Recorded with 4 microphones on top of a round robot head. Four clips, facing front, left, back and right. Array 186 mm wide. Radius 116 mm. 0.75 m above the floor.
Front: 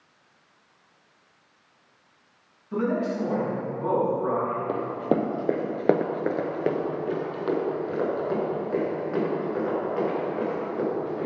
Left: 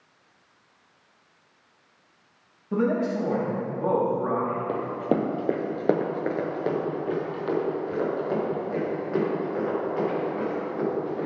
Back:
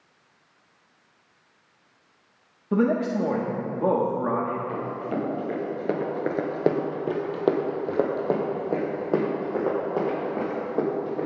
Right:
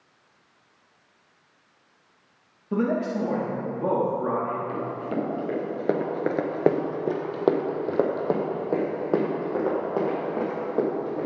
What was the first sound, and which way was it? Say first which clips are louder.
A man speaking: left 1 dB, back 3 dB; 170° right.